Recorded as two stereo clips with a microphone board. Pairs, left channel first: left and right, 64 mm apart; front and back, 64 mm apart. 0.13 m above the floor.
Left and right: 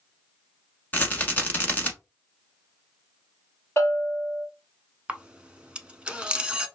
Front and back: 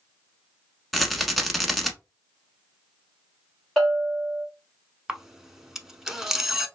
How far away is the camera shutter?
About 0.6 m.